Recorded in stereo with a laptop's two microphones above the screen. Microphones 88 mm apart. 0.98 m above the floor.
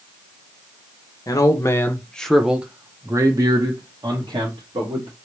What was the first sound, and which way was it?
A man speaking, 40° left (ahead or behind).